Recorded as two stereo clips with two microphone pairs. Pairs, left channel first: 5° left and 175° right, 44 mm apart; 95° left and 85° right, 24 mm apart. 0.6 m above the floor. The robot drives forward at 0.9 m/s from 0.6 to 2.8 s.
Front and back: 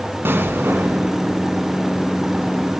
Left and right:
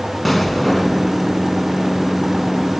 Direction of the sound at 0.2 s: 175° right.